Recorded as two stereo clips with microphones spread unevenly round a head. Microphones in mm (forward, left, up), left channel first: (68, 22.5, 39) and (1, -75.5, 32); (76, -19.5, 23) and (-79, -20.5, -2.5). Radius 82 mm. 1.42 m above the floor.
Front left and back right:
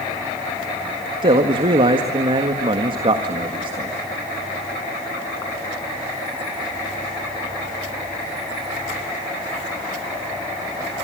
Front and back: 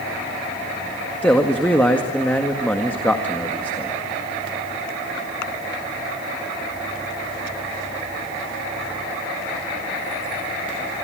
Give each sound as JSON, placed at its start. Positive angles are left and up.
{"t": 1.2, "sound": "a man speaking", "azimuth_deg": -80, "distance_m": 1.8}